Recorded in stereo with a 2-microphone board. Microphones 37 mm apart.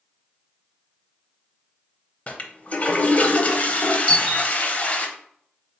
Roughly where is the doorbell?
Left.